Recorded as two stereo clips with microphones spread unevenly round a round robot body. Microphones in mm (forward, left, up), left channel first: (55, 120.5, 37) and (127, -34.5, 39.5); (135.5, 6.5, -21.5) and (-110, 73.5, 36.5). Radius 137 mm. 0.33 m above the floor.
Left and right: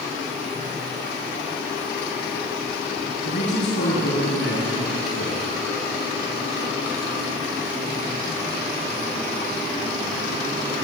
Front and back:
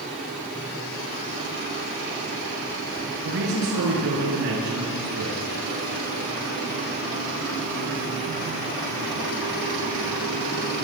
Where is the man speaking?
130° left, 8 m; by 5.4 s 140° left, 8.5 m.